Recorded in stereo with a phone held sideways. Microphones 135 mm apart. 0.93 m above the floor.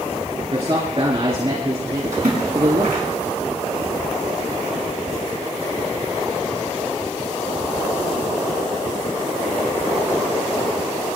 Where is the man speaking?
50° right (ahead or behind), 2.5 m.